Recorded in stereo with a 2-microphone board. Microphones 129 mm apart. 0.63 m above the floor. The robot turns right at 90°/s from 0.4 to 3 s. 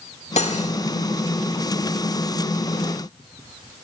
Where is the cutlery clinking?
75° left, 1.1 m; by 0.8 s 105° left, 1.1 m.